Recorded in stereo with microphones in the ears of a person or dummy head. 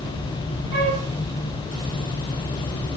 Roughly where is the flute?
Right.